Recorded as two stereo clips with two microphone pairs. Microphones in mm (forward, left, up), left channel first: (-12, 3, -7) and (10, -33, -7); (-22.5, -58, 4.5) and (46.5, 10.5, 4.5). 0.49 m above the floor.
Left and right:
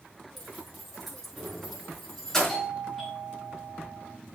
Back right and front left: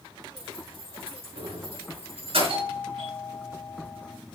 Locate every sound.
0.4 s keys jangling: 30° left, 5 m; by 2.6 s 45° left, 5 m
2.5 s a doorbell: 30° left, 4 m